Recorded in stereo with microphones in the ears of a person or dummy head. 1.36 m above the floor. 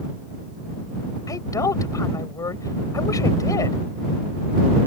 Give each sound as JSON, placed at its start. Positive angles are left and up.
{"t": 1.3, "sound": "a woman speaking", "side_deg": 20}